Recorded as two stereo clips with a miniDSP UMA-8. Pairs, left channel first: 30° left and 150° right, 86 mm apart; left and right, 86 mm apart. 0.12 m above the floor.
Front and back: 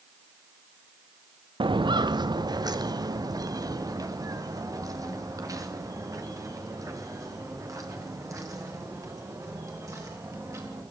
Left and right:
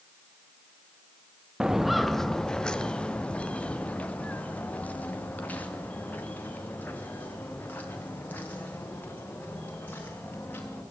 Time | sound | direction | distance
1.6 | footsteps | 170° right | 0.7 m